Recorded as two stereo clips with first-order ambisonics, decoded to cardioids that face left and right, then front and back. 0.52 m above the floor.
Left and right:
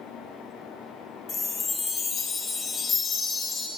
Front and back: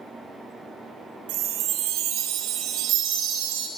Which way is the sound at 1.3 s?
155° left.